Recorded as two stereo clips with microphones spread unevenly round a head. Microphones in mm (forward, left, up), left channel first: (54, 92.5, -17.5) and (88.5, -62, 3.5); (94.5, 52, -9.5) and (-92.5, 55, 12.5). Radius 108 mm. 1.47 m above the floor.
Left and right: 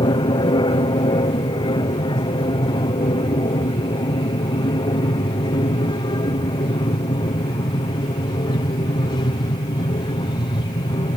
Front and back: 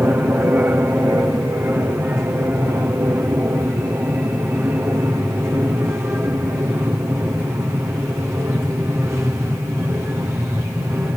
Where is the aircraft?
105° left.